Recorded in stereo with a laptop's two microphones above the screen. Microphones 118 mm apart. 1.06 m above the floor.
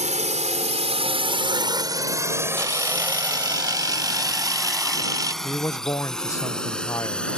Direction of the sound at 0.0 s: 80° right.